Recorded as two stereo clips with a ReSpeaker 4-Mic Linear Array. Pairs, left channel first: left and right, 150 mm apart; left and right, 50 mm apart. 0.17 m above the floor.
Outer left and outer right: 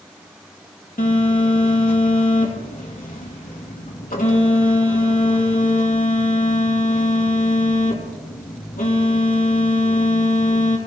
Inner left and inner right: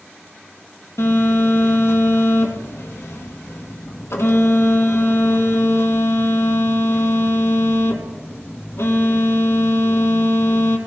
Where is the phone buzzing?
70° left (ahead or behind), 3 m.